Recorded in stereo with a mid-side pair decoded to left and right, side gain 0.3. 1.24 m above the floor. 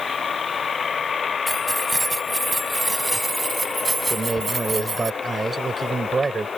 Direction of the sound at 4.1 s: 50° right.